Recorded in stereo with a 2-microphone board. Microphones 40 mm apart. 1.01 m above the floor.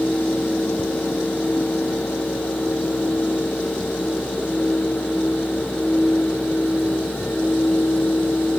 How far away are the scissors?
No scissors in this recording.